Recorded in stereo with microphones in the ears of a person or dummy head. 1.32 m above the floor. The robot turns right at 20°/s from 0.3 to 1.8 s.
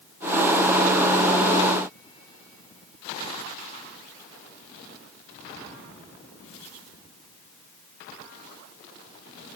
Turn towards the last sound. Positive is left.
No sound to turn to.